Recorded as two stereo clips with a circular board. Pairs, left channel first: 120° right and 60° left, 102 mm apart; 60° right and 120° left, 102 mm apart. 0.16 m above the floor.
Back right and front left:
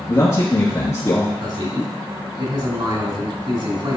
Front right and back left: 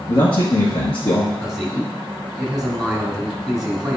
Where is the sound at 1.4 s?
35° left, 2.5 m.